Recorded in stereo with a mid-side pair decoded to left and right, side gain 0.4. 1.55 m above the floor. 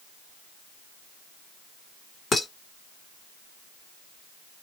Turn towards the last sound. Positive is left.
turn(degrees=45)